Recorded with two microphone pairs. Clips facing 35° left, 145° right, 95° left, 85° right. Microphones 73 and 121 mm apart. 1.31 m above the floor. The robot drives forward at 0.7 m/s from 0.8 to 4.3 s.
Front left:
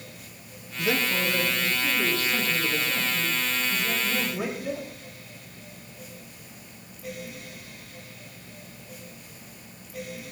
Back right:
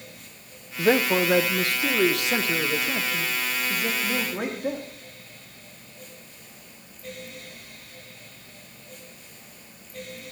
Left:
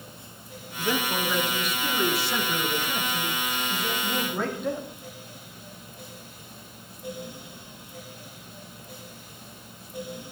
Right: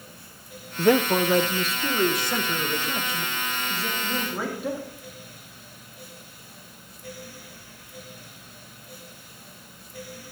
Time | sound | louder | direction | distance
0.8 | a man speaking | back right 6 dB, right 8 dB | 95° right | 0.6 m